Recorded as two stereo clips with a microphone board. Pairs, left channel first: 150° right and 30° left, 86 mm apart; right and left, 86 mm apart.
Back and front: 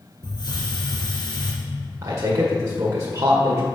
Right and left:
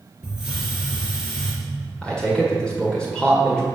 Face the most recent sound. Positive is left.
turn(degrees=-15)